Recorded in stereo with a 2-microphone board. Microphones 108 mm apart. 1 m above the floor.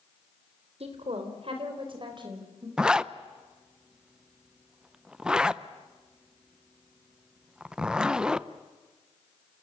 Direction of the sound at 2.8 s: 10° right (ahead or behind).